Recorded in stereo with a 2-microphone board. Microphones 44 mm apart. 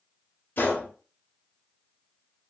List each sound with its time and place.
0.6 s a gunshot: 45° left (ahead or behind), 0.6 m